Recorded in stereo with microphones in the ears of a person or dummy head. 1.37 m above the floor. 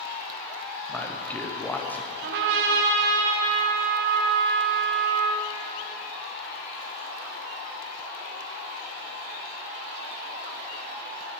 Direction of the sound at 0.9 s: Centre (ahead or behind).